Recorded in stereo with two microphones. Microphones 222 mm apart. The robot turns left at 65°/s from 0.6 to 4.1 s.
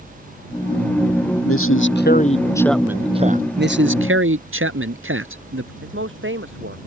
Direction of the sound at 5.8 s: 60° right (ahead or behind).